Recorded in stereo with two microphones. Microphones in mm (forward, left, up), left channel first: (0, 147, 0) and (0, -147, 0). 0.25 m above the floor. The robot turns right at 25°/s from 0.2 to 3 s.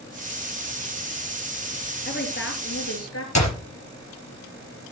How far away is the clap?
About 4 m.